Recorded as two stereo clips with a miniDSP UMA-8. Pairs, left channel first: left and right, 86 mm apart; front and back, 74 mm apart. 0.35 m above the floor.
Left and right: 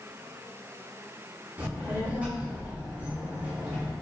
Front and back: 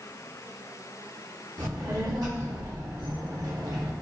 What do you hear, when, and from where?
1.6 s a child speaking: 160° right, 1.8 m